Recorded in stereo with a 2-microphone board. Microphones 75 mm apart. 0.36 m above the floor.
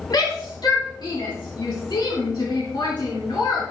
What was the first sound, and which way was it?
A shout, 65° left (ahead or behind).